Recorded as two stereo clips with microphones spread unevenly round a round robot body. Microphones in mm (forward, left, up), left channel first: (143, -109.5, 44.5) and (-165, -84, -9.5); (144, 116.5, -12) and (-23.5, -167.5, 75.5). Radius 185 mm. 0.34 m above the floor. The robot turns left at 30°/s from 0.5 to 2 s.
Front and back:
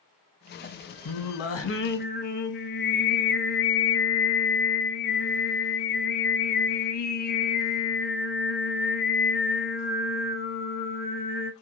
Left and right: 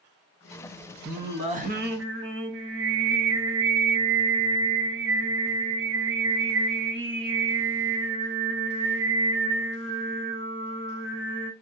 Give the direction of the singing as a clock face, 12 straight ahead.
1 o'clock.